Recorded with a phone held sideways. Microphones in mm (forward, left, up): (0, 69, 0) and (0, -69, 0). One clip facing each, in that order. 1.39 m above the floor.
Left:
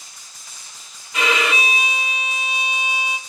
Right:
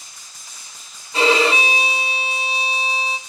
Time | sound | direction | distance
1.1 | a violin | 30° right (ahead or behind) | 0.9 m